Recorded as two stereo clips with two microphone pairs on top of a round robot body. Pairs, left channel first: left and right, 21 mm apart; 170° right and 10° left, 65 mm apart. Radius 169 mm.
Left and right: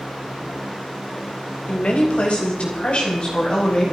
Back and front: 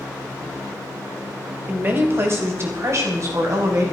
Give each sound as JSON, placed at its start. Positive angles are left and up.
{"t": 1.7, "sound": "a woman speaking", "azimuth_deg": 65, "distance_m": 4.0}